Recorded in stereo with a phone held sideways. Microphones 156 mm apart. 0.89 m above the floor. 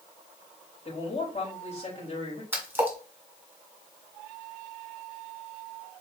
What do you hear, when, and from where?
0.8 s a man speaking: 40° left (ahead or behind), 3.5 m
2.5 s a splash: 15° right (ahead or behind), 1.7 m